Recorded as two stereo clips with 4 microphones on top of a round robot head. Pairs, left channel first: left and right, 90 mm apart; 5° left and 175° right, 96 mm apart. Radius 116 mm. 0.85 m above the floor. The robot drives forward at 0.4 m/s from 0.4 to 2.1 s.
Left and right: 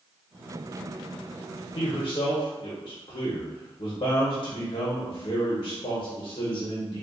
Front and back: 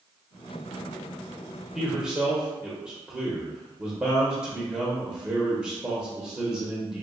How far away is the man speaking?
About 0.7 m.